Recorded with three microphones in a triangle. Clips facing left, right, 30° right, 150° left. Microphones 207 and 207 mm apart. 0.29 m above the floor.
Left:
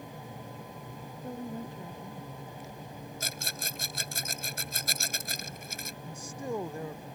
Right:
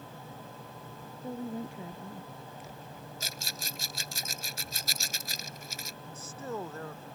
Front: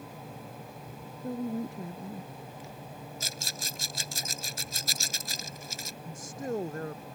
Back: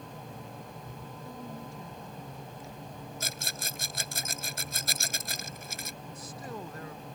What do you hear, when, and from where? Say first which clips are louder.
1.2 s a woman speaking: right 2 dB, front 12 dB; 10° right; by 2.3 s 15° right
3.2 s a rattle: left 3 dB, back 1 dB; 125° left
6.0 s a man speaking: left 3 dB, front 10 dB; 15° left